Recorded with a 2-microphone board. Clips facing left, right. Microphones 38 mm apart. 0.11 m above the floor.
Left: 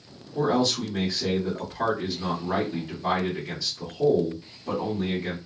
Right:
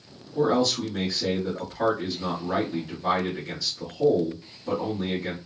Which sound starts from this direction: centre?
A man speaking, at 0.3 s.